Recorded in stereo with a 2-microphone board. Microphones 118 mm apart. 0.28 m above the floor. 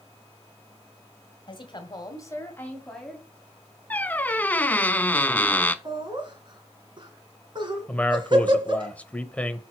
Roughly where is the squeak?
Centre.